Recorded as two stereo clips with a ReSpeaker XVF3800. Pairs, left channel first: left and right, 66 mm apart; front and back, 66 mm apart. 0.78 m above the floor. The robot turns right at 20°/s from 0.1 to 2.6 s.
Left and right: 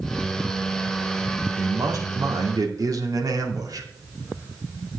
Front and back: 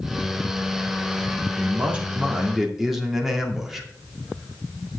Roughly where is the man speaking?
Behind right.